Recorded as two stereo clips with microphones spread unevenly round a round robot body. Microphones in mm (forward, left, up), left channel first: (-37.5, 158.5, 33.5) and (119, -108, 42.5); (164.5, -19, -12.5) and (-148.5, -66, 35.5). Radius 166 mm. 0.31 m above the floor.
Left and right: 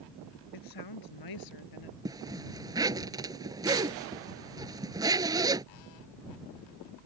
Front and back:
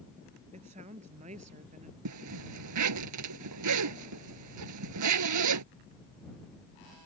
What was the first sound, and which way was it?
A woman speaking, 120° left.